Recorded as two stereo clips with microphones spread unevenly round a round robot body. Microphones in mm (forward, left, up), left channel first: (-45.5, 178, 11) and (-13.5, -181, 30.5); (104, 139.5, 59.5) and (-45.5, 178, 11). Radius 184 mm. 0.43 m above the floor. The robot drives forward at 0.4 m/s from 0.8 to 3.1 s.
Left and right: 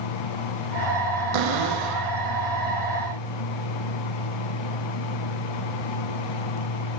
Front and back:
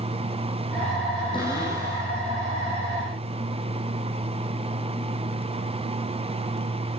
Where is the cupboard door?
90° right, 7.5 m; by 2.1 s 95° right, 7.5 m.